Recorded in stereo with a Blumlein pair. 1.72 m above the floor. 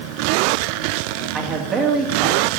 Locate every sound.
1.3 s a man speaking: 25° right, 3 m